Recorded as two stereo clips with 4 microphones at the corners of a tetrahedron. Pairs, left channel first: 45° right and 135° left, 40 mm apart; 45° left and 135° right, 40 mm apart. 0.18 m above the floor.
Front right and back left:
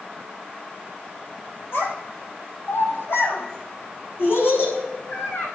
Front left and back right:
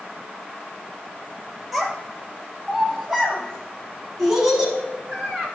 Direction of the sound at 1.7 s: 55° right.